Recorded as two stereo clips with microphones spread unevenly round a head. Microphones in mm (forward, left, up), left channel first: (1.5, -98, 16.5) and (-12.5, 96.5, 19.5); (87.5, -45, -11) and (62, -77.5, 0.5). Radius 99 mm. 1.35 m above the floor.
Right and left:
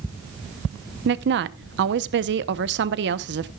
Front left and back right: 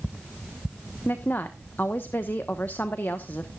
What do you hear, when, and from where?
1.1 s a woman speaking: 130° left, 0.9 m